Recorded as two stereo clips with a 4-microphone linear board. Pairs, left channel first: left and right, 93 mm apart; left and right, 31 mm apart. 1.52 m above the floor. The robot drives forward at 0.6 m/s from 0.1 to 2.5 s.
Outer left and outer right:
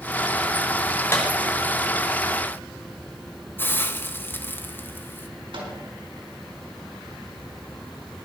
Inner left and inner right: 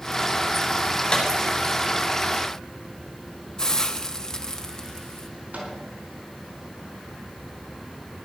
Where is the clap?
25° left (ahead or behind), 5 m.